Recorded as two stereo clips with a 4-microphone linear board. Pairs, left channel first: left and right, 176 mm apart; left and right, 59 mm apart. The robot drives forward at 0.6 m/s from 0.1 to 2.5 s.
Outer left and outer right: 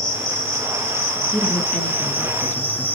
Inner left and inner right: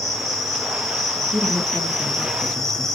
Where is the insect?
5° left (ahead or behind), 2.5 m; by 3.0 s 10° left (ahead or behind), 1.0 m.